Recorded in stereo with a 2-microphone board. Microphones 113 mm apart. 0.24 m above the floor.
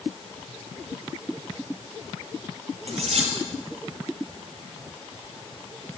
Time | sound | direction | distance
2.9 | cutlery clinking | 65° right (ahead or behind) | 4 m